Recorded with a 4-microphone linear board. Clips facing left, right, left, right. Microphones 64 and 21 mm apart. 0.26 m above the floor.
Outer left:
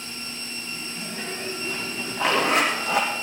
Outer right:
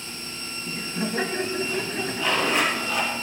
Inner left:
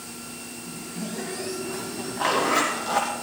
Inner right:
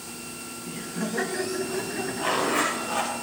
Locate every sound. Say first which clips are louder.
0.7 s laughter: outer right 9 dB, inner right 4 dB; 70° right (ahead or behind), 3 m
2.2 s a zipper: outer left 3 dB, inner left 3 dB; 80° left, 5 m